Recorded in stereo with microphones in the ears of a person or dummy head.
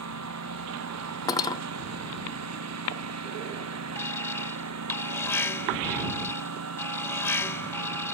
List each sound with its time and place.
0.0 s a lawn mower: 85° right
1.3 s cutlery clinking: 25° left (ahead or behind)
4.0 s an alarm: 15° left (ahead or behind)